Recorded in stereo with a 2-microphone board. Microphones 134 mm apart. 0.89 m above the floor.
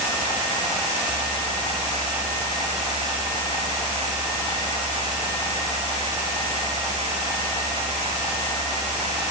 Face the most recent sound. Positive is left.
No sound to turn to.